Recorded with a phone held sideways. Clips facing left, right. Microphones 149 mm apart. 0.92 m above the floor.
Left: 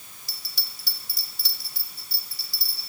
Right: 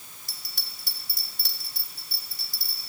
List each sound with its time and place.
0.3 s a bell: 60° right (ahead or behind), 2 m